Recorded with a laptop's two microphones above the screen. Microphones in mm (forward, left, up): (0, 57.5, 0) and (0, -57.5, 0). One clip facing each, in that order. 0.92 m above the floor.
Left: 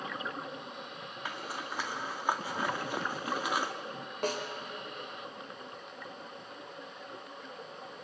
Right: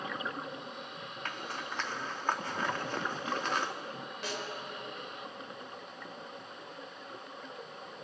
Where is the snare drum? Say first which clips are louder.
Left 7 dB; 45° left (ahead or behind), 4.5 m.